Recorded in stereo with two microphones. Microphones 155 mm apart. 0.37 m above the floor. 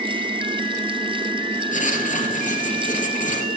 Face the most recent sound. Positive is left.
turn(degrees=55)  # may be behind; listen again after turning